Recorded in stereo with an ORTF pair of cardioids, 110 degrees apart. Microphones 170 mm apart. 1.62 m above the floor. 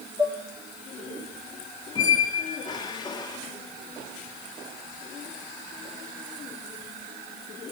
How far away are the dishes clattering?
About 3 m.